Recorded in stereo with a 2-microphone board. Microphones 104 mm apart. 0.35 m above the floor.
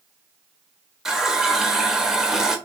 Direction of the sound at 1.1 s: 5° right (ahead or behind).